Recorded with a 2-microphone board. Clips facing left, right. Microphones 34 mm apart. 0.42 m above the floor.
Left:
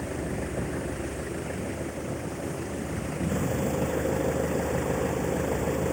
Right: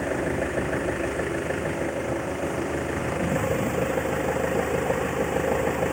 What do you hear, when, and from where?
0.0 s an engine running: 75° right (ahead or behind)